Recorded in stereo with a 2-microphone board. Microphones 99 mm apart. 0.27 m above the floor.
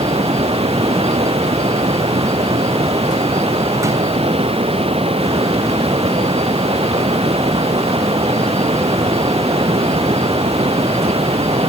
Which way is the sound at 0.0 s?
90° right.